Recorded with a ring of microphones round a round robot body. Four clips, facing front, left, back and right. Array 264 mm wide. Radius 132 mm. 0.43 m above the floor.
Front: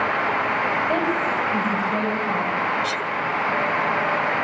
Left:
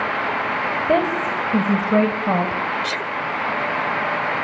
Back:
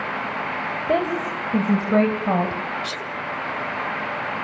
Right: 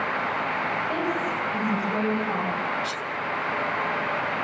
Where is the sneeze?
70° left, 1.7 m.